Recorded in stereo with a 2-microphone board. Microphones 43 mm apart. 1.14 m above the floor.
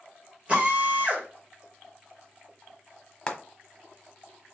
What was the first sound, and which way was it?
A drill, 30° right (ahead or behind).